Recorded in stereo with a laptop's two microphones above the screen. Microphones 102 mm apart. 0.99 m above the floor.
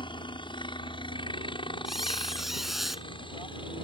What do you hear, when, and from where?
0.0 s a helicopter: 55° left (ahead or behind)
1.9 s a squeak: centre (ahead or behind)